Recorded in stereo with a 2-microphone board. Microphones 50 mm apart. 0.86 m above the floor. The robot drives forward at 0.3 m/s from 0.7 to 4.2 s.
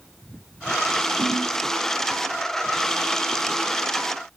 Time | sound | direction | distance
1.2 | a ringtone | 10° right (ahead or behind) | 7 m